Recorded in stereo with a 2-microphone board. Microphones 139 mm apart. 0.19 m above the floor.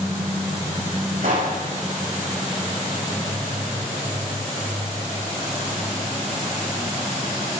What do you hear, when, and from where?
1.2 s a pop: 75° right (ahead or behind), 9 m